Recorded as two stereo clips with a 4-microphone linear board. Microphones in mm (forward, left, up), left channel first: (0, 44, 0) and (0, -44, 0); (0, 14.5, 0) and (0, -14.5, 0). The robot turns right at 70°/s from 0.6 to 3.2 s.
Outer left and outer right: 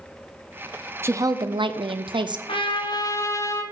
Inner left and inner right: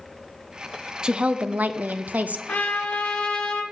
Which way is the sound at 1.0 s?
150° right.